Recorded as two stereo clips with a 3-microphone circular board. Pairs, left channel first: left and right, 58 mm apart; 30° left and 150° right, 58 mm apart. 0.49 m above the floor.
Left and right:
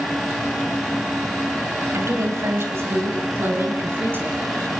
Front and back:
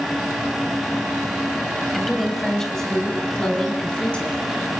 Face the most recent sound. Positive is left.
turn(degrees=-40)